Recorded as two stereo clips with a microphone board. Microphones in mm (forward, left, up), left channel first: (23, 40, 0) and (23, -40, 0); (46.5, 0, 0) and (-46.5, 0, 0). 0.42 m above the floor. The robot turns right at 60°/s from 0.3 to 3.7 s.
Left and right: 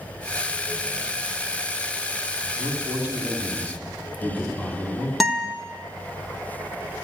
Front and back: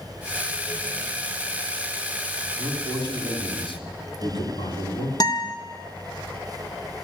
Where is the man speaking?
60° right, 3 m; by 5.1 s 15° left, 3 m.